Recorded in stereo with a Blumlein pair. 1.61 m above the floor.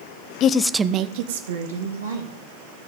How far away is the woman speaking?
About 0.8 m.